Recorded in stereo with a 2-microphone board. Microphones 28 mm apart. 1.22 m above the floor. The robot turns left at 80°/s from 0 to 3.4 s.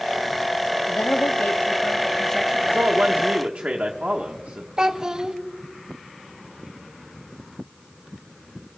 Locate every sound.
0.9 s a woman speaking: 135° left, 0.6 m; by 2.9 s 30° right, 0.6 m
2.7 s a man speaking: 85° right, 1.0 m; by 4.7 s 145° right, 1.0 m
4.8 s a child speaking: 25° right (ahead or behind), 0.8 m